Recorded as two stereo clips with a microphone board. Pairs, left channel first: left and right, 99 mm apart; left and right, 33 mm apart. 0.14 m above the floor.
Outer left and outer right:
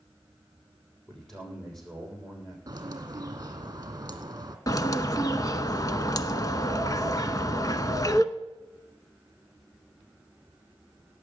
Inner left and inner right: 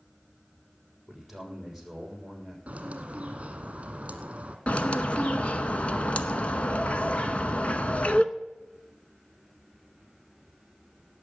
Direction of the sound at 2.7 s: 35° right (ahead or behind).